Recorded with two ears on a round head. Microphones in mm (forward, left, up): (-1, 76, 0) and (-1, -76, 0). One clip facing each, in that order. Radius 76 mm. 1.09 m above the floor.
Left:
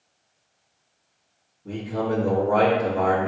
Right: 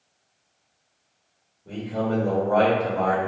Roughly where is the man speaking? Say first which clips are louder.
Even; left.